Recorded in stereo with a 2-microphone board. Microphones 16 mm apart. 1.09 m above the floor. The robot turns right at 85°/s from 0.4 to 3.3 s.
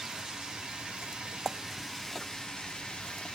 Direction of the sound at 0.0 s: 135° right.